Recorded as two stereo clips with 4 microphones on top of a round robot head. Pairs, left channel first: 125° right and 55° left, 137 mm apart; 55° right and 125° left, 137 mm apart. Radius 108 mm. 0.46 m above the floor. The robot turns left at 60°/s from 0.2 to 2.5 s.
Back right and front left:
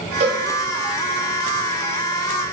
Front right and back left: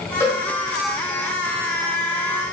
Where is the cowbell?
15° left, 0.8 m; by 0.4 s straight ahead, 0.8 m.